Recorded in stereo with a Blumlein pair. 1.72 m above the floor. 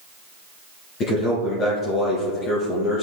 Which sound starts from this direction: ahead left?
A man speaking, at 1.0 s.